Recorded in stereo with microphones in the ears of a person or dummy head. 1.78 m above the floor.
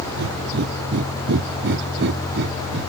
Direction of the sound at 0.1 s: 65° right (ahead or behind).